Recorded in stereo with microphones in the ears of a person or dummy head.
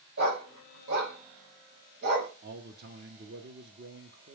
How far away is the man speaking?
About 0.6 m.